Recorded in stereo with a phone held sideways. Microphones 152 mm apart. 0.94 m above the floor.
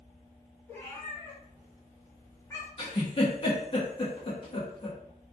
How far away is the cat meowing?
About 1.8 m.